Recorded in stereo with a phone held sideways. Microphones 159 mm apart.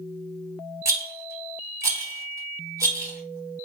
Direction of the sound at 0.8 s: 20° right (ahead or behind).